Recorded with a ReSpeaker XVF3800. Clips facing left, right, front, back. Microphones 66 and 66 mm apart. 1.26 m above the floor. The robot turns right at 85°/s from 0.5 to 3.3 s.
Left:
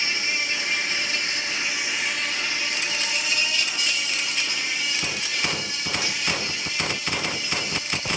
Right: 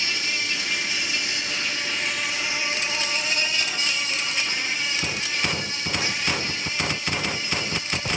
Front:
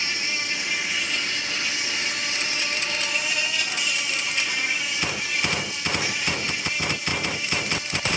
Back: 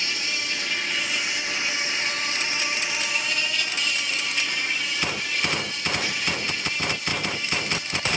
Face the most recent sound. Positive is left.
turn(degrees=-80)